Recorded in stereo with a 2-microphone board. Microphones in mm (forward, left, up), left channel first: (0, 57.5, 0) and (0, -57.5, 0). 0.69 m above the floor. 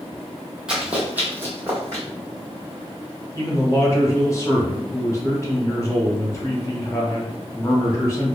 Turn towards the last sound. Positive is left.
turn(degrees=25)  # may be behind; listen again after turning